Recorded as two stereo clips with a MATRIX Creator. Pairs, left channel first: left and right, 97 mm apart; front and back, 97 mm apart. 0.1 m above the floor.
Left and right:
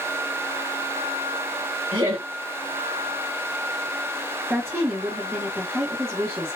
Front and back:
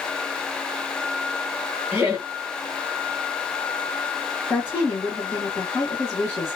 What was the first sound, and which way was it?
Laughter, 115° right.